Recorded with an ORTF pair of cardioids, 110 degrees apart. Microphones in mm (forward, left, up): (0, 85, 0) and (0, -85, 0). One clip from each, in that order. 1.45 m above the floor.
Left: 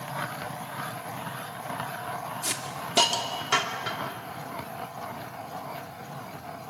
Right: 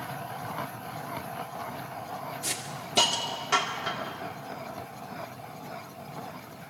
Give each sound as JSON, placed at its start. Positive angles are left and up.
{"t": 2.4, "sound": "a hiss", "azimuth_deg": 15, "distance_m": 2.5}